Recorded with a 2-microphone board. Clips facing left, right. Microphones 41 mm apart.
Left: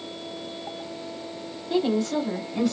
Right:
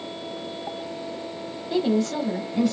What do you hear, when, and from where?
1.7 s a woman speaking: centre (ahead or behind), 1.3 m